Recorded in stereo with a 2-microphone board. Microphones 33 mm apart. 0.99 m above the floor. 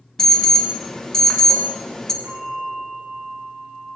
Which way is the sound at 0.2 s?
20° left (ahead or behind).